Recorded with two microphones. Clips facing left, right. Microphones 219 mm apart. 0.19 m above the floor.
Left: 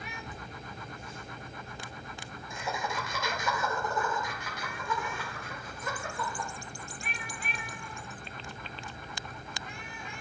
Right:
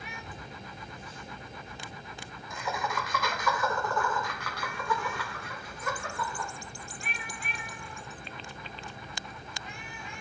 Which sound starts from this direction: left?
Laughter, at 0.3 s.